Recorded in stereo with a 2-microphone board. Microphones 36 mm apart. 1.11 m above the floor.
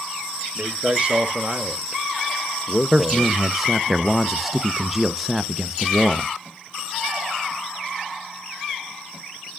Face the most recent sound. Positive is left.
turn(degrees=-5)  # may be behind; listen again after turning